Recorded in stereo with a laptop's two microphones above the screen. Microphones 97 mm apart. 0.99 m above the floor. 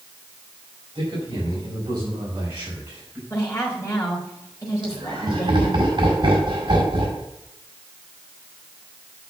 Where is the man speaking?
40° right (ahead or behind), 5.5 m; by 3.2 s 15° right (ahead or behind), 5.5 m.